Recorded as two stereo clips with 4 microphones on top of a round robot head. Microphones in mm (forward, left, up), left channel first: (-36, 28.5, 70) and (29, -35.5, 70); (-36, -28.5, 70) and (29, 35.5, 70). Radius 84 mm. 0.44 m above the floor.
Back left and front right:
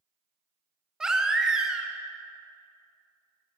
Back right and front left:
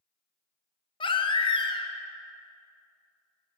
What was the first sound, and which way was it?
A baby crying, 125° right.